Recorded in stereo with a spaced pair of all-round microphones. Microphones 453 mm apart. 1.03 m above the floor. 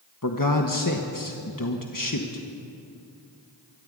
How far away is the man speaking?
About 1.4 m.